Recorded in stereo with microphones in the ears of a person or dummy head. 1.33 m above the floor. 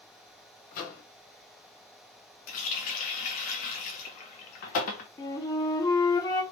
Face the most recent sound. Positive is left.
turn(degrees=20)  # may be behind; listen again after turning